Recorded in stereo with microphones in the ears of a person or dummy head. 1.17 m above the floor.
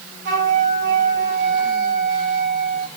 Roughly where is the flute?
Right.